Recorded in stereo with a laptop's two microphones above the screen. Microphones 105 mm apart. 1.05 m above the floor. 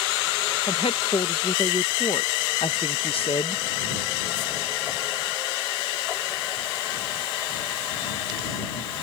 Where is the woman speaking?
60° left (ahead or behind).